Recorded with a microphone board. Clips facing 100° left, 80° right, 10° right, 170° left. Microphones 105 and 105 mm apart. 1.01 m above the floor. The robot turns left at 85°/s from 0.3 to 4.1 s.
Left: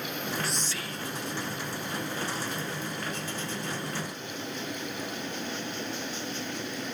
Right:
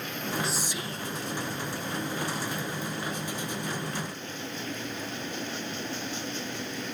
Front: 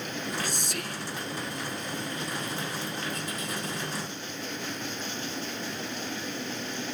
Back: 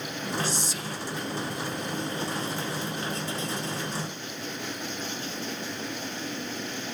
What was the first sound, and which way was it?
Whispering, 15° left.